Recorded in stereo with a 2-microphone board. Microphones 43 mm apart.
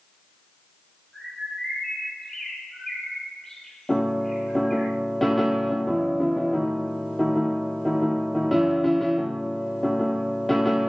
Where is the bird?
10° left (ahead or behind), 3 m.